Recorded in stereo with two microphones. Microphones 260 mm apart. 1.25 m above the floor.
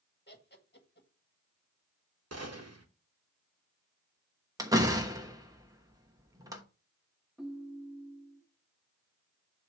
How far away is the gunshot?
About 1.2 m.